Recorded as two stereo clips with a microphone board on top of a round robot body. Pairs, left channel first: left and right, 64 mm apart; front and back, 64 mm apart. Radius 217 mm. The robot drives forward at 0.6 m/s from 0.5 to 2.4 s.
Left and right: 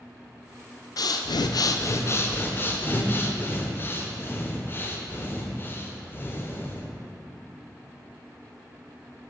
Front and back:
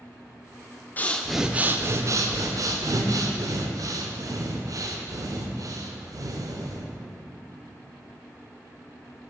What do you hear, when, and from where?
1.0 s breathing: 65° left, 0.5 m; by 6.9 s 145° left, 0.8 m